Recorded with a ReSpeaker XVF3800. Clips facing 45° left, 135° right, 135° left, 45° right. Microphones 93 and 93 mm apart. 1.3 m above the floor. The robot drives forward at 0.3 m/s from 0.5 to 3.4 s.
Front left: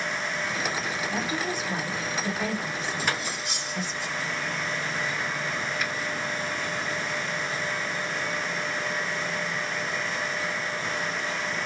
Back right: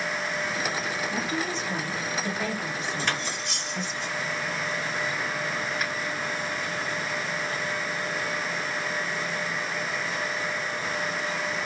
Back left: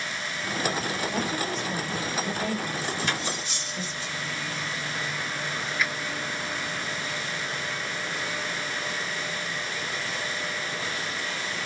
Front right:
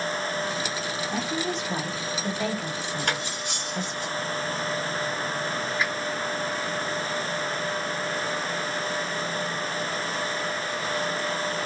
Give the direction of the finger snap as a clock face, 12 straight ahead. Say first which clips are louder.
Even, even; 3 o'clock.